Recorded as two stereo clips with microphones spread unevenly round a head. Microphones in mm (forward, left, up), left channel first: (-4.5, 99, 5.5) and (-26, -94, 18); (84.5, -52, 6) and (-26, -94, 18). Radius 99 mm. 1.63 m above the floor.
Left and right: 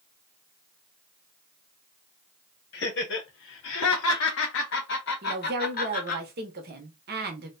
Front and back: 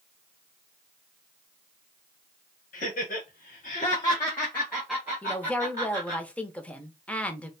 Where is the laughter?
45° left, 1.0 m; by 6.2 s 135° left, 1.4 m.